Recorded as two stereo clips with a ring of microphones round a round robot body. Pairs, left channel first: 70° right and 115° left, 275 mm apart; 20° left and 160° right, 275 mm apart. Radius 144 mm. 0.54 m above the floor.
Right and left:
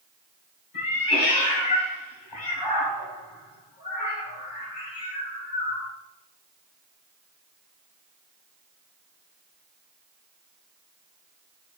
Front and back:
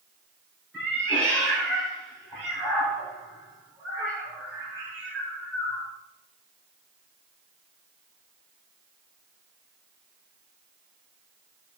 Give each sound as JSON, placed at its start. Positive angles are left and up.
{"t": 0.7, "sound": "a cat meowing", "azimuth_deg": -75, "distance_m": 1.8}